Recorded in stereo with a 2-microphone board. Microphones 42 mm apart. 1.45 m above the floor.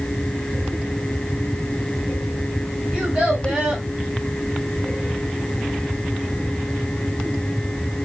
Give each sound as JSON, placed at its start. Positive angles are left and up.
{"t": 2.9, "sound": "a child speaking", "side_deg": -20, "distance_m": 2.5}